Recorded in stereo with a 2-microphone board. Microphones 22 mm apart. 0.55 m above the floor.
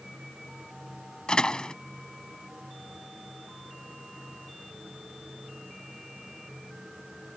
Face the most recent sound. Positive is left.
turn(degrees=45)  # may be behind; listen again after turning